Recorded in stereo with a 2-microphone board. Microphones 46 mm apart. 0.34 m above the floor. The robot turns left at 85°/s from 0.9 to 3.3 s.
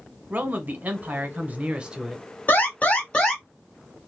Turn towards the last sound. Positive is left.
turn(degrees=20)